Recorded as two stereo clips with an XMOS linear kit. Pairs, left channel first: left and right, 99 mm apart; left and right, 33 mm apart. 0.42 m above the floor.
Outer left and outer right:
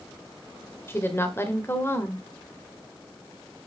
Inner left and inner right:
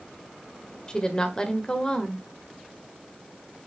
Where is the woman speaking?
25° left (ahead or behind), 1.3 m.